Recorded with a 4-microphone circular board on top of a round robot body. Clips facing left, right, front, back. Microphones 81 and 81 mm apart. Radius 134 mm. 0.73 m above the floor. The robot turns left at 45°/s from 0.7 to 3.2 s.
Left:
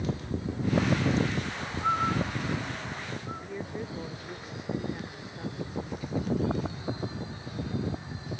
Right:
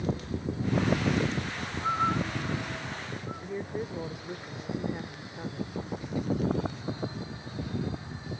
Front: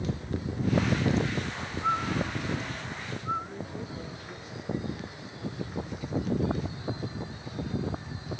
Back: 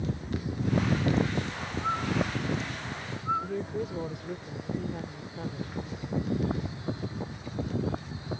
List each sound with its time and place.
3.4 s a woman speaking: 165° right